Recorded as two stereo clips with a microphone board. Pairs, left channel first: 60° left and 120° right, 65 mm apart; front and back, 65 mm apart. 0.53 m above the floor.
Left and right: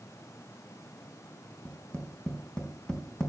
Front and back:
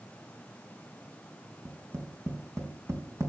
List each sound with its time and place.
1.6 s tapping: 140° left, 4.5 m